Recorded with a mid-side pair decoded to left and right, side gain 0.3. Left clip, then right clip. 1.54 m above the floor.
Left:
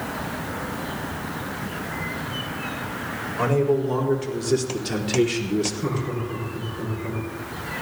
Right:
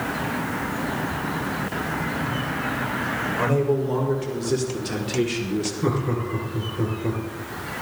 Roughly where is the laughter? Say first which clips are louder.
Right 3 dB; ahead right.